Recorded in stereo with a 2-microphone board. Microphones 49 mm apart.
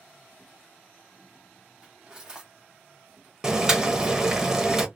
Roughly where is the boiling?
Centre.